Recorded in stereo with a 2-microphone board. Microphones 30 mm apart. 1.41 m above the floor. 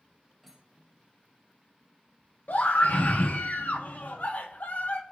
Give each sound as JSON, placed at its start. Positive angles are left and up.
{"t": 0.4, "sound": "cutlery clinking", "side_deg": 5, "distance_m": 4.5}
{"t": 2.5, "sound": "a scream", "side_deg": 65, "distance_m": 1.6}